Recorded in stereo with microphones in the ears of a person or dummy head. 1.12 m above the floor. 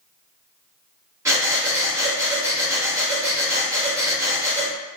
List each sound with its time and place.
1.2 s breathing: 20° right (ahead or behind), 1.6 m